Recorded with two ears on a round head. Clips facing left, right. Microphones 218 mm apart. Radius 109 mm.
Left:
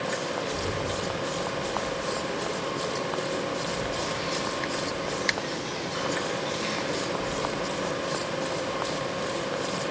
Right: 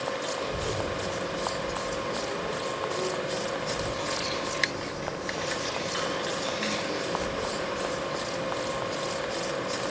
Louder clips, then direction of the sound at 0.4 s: Left 1 dB; 70° right (ahead or behind).